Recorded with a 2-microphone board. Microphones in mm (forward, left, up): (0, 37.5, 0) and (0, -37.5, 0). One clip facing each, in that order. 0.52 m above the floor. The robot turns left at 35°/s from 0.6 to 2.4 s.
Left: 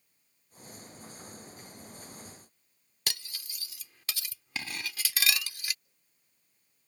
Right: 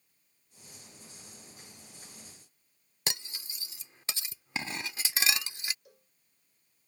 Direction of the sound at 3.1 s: 25° right (ahead or behind).